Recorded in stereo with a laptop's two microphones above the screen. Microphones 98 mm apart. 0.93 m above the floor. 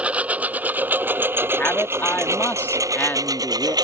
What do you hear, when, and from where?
0.0 s a lawn mower: 15° right (ahead or behind); by 3.9 s 45° right (ahead or behind)
1.6 s a man speaking: 20° left (ahead or behind)